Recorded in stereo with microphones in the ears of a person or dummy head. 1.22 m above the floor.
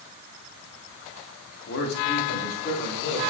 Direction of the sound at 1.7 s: 60° left (ahead or behind).